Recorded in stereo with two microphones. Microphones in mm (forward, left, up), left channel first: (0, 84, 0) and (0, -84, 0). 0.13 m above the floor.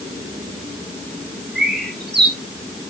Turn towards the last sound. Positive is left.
turn(degrees=-75)  # may be behind; listen again after turning